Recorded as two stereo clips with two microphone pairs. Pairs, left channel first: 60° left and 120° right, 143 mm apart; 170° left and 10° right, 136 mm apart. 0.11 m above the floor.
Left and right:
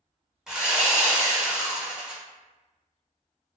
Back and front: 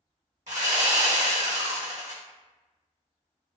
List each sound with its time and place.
0.5 s sawing: 35° right, 1.0 m